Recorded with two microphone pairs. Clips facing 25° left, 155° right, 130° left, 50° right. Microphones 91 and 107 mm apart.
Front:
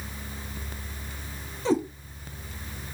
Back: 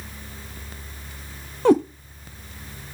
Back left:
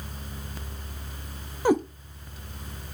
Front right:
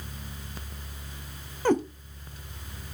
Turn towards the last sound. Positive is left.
turn(degrees=-155)